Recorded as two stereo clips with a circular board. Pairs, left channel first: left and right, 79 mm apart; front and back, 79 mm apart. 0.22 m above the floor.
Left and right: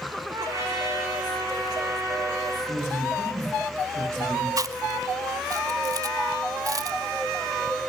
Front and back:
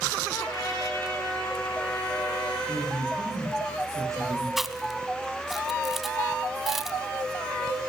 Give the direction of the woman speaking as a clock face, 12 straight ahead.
4 o'clock.